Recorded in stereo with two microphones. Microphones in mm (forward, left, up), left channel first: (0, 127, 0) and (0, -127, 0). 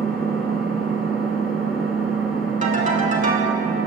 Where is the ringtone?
30° right (ahead or behind), 0.6 m.